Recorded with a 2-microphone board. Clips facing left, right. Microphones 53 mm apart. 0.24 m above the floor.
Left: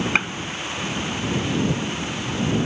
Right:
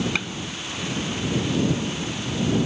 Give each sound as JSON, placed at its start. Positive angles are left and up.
{"t": 0.1, "sound": "a gunshot", "side_deg": 40}